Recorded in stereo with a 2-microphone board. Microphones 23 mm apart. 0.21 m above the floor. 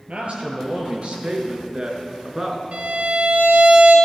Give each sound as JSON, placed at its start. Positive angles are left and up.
{"t": 0.1, "sound": "a man speaking", "side_deg": -60, "distance_m": 3.5}
{"t": 2.7, "sound": "a violin", "side_deg": -60, "distance_m": 3.5}